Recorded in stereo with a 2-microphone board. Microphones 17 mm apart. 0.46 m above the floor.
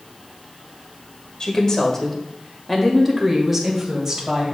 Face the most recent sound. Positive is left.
turn(degrees=-30)  # may be behind; listen again after turning